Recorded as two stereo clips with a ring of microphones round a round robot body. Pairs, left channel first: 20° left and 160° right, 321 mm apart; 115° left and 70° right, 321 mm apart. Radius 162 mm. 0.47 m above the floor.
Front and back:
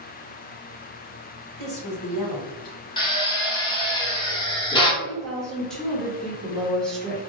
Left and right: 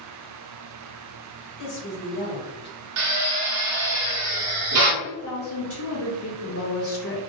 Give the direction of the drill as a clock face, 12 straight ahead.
2 o'clock.